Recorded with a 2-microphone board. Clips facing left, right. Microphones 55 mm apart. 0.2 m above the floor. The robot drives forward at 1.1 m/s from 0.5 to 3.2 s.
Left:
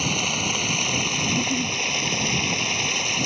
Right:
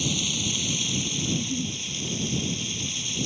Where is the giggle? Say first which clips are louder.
Left 5 dB; 20° left (ahead or behind); by 1.8 s 10° left (ahead or behind).